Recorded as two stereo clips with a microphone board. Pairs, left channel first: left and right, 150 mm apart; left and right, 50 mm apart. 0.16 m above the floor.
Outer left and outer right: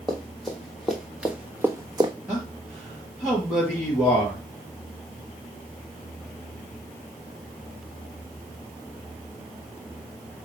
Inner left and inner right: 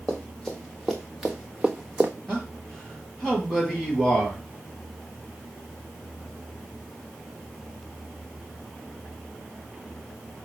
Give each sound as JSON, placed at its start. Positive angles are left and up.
{"t": 0.1, "sound": "running footsteps", "side_deg": 5, "distance_m": 1.7}
{"t": 2.3, "sound": "a man speaking", "side_deg": 0, "distance_m": 3.0}